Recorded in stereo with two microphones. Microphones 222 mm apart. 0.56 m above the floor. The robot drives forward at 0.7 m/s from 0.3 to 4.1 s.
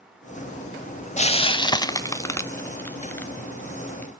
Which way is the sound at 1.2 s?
30° left (ahead or behind).